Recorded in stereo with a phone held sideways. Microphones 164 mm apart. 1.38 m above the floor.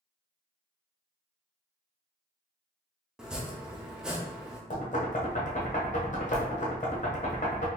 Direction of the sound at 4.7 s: 45° left (ahead or behind).